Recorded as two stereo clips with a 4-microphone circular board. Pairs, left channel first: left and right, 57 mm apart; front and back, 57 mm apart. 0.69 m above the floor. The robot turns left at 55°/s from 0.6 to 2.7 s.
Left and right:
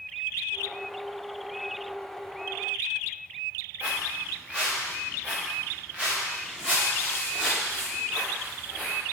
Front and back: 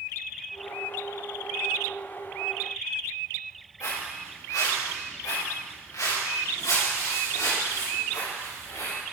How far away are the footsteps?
About 5 m.